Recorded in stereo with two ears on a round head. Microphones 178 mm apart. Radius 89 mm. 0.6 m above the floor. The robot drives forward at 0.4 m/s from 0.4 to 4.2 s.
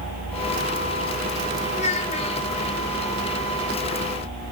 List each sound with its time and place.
1.7 s a child speaking: 35° left (ahead or behind), 1.2 m; by 2.5 s 30° left (ahead or behind), 1.5 m